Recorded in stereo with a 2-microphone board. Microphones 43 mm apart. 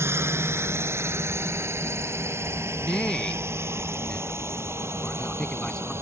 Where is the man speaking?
20° left (ahead or behind).